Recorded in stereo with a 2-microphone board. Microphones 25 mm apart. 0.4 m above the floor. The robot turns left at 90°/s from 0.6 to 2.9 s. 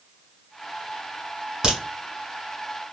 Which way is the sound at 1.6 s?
30° right (ahead or behind).